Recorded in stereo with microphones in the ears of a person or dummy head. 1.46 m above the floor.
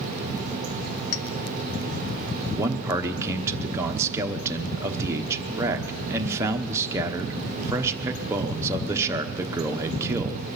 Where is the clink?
65° left (ahead or behind), 0.8 m.